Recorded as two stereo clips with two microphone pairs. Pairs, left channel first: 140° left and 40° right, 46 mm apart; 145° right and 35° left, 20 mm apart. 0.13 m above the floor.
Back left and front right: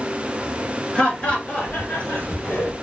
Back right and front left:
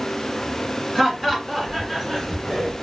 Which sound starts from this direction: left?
Laughter, at 0.9 s.